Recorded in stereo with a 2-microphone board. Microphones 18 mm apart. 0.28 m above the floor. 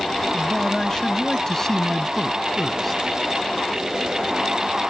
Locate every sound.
0.3 s a man speaking: 40° left (ahead or behind); by 3.0 s 5° left (ahead or behind)